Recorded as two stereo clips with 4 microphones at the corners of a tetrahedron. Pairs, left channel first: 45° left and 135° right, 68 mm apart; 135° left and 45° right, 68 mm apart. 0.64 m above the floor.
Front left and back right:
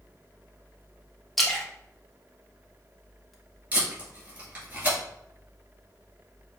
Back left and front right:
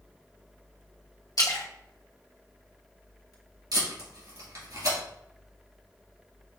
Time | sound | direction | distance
1.4 | a splash | 135° left | 1.1 m
3.7 | tape being pulled | 70° right | 2.5 m